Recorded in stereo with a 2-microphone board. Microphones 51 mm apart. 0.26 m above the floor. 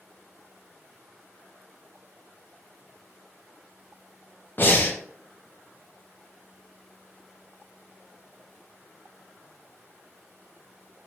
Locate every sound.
4.6 s breathing: 40° left (ahead or behind), 0.5 m